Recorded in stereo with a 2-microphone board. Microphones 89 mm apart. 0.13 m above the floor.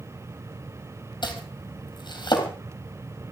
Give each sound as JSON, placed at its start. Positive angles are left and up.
{"t": 1.2, "sound": "chopping", "side_deg": 55, "distance_m": 3.5}